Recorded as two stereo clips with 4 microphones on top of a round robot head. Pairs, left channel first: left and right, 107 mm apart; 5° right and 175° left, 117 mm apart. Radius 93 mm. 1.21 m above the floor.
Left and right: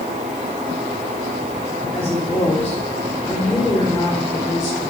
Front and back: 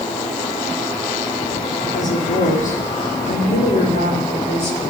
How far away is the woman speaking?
About 3.5 m.